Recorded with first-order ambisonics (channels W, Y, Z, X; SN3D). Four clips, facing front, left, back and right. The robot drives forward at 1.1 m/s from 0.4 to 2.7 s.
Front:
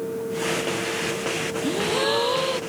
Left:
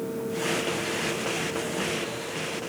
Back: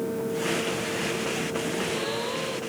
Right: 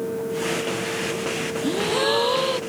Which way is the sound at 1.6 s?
55° right.